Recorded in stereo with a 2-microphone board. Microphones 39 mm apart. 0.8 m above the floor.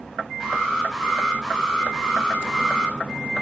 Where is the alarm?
10° right (ahead or behind), 7 m.